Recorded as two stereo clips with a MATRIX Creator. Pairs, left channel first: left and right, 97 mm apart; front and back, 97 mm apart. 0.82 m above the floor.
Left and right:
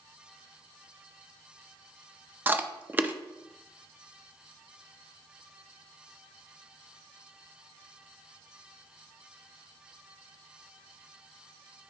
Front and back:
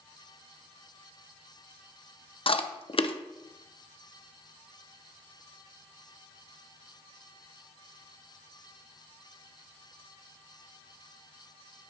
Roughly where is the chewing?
Ahead.